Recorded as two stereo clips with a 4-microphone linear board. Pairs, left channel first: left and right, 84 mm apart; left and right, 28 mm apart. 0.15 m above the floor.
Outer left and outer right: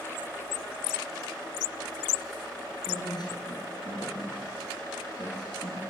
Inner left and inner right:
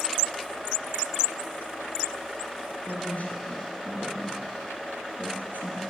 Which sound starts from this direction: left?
A woman speaking, at 2.9 s.